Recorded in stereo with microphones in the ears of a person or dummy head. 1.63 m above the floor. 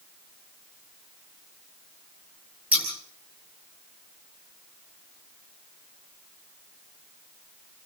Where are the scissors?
10° right (ahead or behind), 6.5 m.